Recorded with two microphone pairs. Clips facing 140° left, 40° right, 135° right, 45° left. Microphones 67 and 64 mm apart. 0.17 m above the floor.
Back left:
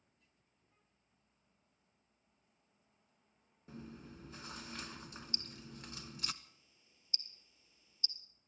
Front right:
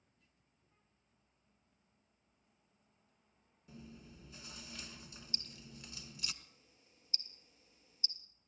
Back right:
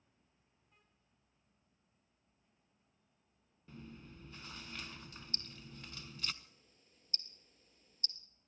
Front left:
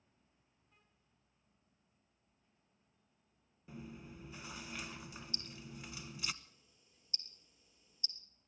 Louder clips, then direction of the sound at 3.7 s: Back left 4 dB, front left 3 dB; 115° left.